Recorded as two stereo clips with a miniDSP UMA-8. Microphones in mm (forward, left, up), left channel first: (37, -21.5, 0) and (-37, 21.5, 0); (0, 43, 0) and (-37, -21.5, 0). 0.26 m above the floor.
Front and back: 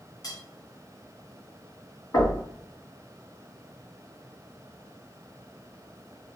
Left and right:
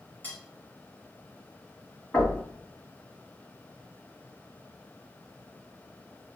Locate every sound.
0.2 s cutlery clinking: straight ahead, 1.6 m
2.1 s knocking: 5° right, 2.0 m